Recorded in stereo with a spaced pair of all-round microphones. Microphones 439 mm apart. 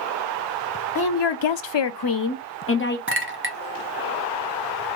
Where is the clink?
30° right (ahead or behind), 0.5 m.